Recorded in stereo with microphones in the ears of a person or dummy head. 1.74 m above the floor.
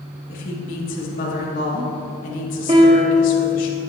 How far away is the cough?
I don't hear a cough.